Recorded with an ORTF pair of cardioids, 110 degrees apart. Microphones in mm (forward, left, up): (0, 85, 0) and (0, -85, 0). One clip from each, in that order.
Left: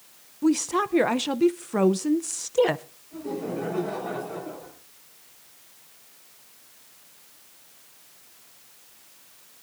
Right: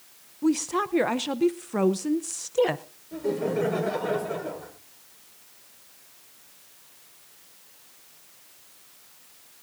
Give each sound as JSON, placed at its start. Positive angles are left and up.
{"t": 0.4, "sound": "a woman speaking", "azimuth_deg": 10, "distance_m": 0.6}
{"t": 3.1, "sound": "laughter", "azimuth_deg": -60, "distance_m": 4.5}